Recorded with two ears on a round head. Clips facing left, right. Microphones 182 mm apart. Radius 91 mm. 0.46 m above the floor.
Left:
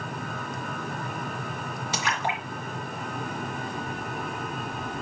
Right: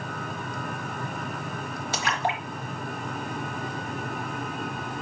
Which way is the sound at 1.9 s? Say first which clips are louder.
Right 2 dB; 70° left (ahead or behind).